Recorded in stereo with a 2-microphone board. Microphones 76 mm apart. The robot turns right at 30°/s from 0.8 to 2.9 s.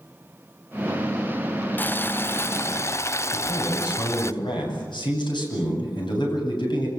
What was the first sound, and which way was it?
Boiling, 40° left.